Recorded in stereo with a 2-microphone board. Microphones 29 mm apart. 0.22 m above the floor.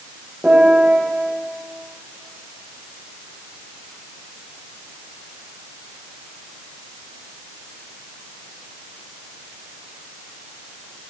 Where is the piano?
85° right, 6 m.